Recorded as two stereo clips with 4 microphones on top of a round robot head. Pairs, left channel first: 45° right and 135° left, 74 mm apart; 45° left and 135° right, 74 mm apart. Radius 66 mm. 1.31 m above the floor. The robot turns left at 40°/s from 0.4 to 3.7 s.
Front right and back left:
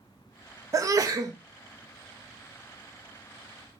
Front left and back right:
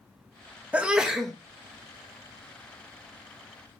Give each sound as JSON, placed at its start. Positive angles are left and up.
{"t": 0.7, "sound": "a sneeze", "azimuth_deg": 155, "distance_m": 0.6}